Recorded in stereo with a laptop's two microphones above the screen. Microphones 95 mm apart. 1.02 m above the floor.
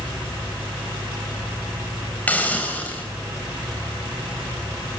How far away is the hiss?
About 3.5 m.